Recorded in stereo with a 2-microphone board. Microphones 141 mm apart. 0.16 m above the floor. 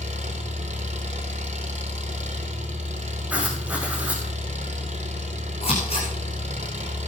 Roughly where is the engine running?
Right.